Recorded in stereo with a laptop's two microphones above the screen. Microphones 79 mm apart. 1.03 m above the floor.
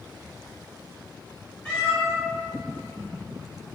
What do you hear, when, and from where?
1.6 s a cat meowing: 15° left (ahead or behind), 1.3 m